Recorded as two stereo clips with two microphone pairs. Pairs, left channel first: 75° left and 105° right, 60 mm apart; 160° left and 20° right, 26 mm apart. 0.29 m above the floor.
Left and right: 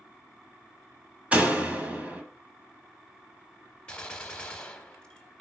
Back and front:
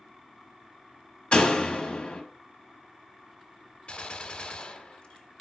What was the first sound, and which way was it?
A door slam, 165° right.